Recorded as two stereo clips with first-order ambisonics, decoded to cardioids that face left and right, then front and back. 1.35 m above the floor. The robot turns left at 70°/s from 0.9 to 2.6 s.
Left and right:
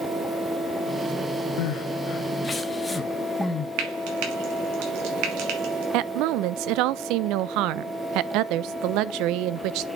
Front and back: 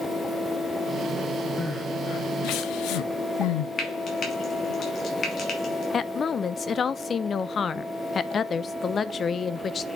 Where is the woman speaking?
65° right, 0.5 m.